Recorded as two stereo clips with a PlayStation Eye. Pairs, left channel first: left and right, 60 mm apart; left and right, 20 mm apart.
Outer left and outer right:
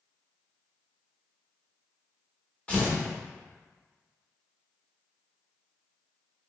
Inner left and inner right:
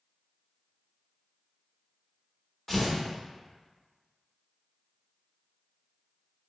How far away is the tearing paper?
About 1.2 m.